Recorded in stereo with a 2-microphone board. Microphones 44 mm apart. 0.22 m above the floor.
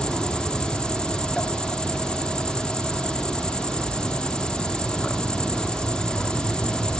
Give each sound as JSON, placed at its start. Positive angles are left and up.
{"t": 0.0, "sound": "an insect", "side_deg": 25, "distance_m": 1.3}